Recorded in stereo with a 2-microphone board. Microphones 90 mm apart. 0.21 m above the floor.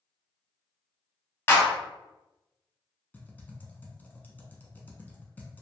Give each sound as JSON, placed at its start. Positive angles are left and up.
{"t": 1.5, "sound": "a clap", "side_deg": 25, "distance_m": 0.9}
{"t": 3.1, "sound": "typing on a keyboard", "side_deg": 20, "distance_m": 0.7}